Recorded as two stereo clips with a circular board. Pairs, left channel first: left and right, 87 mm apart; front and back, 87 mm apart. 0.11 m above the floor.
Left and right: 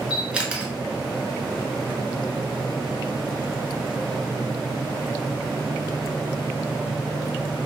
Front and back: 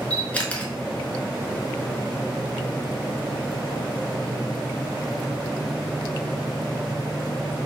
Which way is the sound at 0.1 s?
40° right.